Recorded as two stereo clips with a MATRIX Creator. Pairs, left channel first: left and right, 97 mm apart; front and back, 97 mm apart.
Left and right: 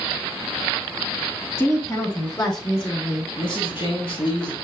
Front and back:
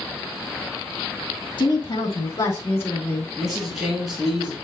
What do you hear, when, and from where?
1.6 s a woman speaking: 30° left, 2.5 m; by 3.3 s 75° left, 3 m
3.4 s a man speaking: 95° left, 3 m